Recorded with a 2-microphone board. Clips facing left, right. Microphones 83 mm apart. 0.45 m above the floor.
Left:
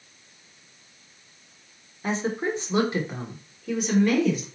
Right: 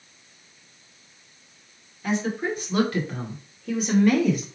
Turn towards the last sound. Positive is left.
turn(degrees=-10)  # may be behind; listen again after turning